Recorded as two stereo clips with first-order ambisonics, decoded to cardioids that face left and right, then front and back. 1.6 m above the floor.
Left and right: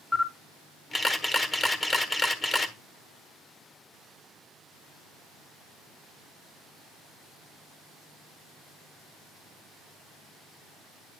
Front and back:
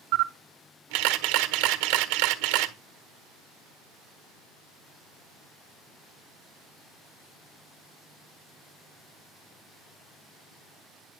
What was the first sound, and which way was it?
A camera shutter, 170° left.